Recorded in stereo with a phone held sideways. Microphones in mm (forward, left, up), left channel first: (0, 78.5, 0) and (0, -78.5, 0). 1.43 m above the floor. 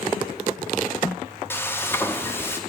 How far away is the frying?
About 0.7 m.